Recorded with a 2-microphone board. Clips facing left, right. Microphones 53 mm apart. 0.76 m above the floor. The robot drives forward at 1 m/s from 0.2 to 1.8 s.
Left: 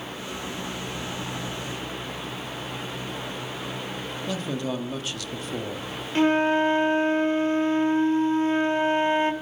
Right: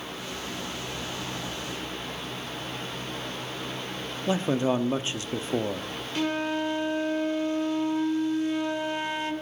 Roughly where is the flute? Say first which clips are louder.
Left 8 dB; left.